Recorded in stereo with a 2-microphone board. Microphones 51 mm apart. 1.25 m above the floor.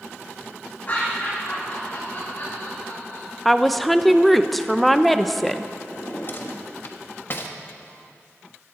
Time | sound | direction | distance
0.9 | laughter | 35° left (ahead or behind) | 6 m
3.5 | a woman speaking | 5° left (ahead or behind) | 0.6 m
5.9 | a drawer | 50° left (ahead or behind) | 1.2 m